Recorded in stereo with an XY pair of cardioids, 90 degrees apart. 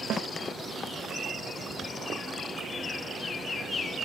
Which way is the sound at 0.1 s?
70° right.